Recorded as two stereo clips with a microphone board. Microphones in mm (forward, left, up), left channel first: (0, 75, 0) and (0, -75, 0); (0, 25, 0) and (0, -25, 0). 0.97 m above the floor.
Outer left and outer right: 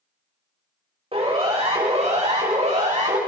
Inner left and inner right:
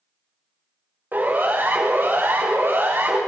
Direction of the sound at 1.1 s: 40° right (ahead or behind).